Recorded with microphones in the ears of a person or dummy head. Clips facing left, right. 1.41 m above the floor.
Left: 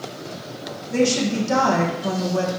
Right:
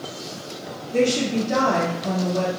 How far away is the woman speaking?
About 1.5 m.